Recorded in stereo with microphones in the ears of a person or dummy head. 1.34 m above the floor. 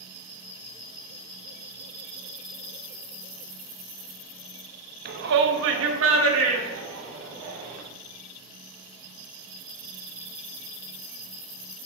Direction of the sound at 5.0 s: 50° right (ahead or behind).